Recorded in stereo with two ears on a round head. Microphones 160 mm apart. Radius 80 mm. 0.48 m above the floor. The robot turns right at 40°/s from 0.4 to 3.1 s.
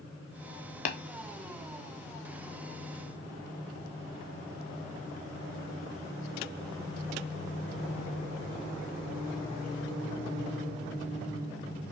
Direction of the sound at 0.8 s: 40° left (ahead or behind).